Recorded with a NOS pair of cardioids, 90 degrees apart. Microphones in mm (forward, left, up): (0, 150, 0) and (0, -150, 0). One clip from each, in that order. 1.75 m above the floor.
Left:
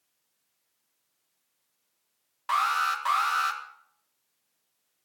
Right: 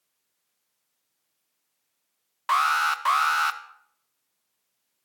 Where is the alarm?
35° right, 1.6 m.